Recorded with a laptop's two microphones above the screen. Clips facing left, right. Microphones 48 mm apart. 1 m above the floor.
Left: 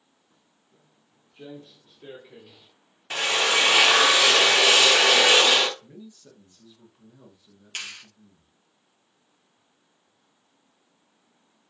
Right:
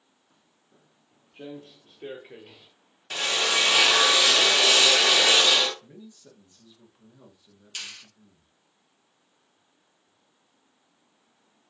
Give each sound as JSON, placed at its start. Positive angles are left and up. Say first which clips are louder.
{"t": 0.3, "sound": "footsteps", "louder": "right 1 dB", "side_deg": -35, "distance_m": 2.5}
{"t": 3.1, "sound": "a drill", "louder": "left 3 dB", "side_deg": 25, "distance_m": 0.9}
{"t": 5.8, "sound": "a man speaking", "louder": "left 2 dB", "side_deg": -5, "distance_m": 1.4}
{"t": 7.8, "sound": "a clap", "louder": "left 3 dB", "side_deg": 40, "distance_m": 0.8}